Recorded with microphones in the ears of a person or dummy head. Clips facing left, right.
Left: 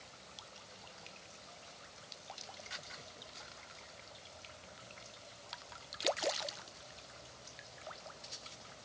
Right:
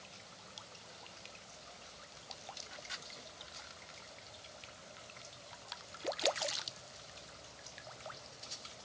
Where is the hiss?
I don't hear a hiss.